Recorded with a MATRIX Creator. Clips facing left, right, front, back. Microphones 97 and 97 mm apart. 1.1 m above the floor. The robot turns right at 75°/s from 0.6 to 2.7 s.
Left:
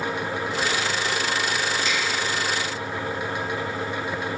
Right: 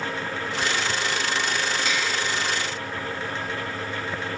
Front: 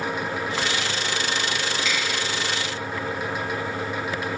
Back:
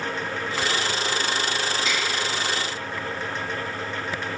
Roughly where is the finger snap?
Behind right.